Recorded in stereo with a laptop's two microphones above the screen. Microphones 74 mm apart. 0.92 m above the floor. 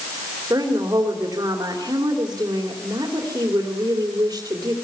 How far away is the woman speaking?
About 3 m.